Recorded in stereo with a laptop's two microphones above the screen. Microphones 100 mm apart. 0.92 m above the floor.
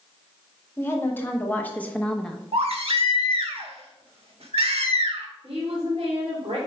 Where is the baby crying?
75° right (ahead or behind), 1.1 m.